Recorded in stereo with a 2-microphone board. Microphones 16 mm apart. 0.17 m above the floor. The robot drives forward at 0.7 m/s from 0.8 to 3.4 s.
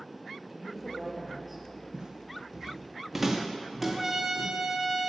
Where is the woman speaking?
5° right (ahead or behind), 3 m.